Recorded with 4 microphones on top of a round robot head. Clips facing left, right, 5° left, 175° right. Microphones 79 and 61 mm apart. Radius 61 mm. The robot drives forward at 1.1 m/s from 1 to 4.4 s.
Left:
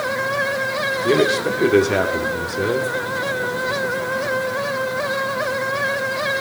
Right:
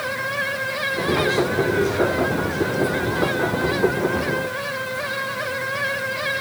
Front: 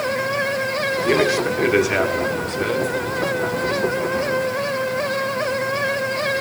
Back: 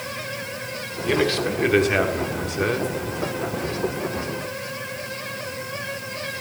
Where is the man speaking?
70° left, 3.5 m; by 2.9 s 105° left, 3 m.